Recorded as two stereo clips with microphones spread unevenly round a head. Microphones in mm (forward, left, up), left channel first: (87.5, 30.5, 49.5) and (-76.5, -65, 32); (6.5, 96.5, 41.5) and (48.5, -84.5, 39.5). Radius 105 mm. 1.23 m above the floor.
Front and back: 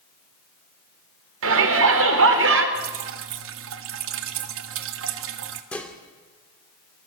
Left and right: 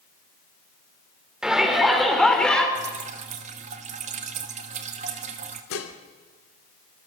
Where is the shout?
165° right, 4.5 m; by 2.6 s 170° right, 4.5 m.